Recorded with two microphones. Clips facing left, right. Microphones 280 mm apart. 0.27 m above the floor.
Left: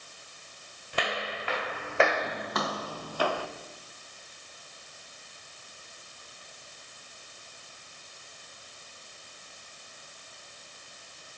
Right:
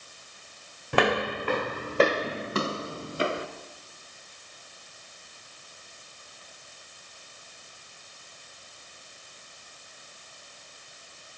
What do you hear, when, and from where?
0.9 s footsteps: 70° right (ahead or behind), 1.0 m; by 3.5 s 20° right (ahead or behind), 2 m